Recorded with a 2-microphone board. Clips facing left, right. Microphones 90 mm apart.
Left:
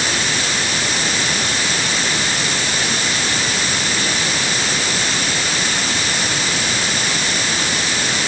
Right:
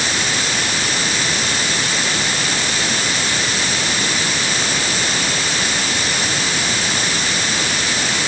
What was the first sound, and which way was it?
Only background noise.